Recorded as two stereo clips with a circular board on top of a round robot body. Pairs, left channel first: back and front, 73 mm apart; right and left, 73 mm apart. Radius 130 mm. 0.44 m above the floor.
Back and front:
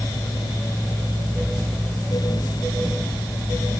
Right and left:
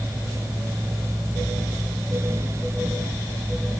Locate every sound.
Only background noise.